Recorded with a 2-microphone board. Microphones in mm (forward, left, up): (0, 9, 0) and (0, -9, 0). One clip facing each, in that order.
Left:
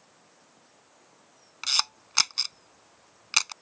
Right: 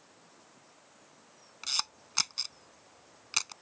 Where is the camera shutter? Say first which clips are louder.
Left 7 dB; 25° left (ahead or behind).